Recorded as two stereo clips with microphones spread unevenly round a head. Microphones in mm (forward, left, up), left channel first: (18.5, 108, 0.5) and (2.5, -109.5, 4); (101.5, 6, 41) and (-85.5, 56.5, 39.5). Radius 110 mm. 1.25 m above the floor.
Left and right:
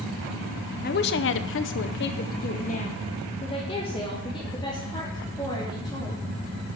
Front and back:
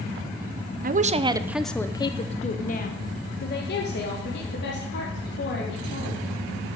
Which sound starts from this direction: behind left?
A woman speaking, at 0.8 s.